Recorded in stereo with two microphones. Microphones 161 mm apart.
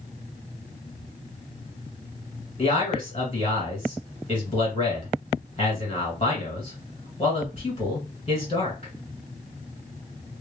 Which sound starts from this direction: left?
A man speaking, at 2.6 s.